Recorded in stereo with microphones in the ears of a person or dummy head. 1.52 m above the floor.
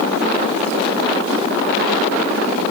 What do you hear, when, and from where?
Only background noise.